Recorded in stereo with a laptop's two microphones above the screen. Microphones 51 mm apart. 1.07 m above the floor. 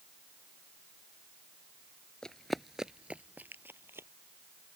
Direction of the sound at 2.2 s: 15° left (ahead or behind).